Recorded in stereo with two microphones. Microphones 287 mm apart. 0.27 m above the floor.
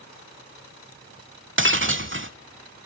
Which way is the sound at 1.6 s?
45° right (ahead or behind).